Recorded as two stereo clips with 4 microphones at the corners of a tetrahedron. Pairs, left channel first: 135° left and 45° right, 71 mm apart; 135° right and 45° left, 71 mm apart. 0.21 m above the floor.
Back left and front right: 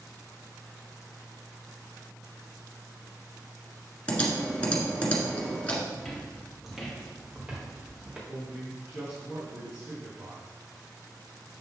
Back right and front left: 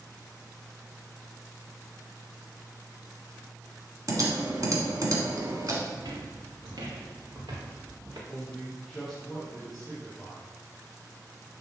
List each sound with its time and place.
4.1 s typing on a keyboard: 65° left, 1.4 m
5.9 s footsteps: 45° left, 1.7 m; by 8.2 s 30° left, 2.5 m
8.3 s a man speaking: 40° right, 2.0 m